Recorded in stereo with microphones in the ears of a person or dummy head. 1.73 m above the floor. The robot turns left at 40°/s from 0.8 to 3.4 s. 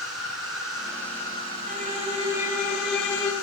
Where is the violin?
130° right, 2.5 m; by 3.3 s 160° left, 2.5 m.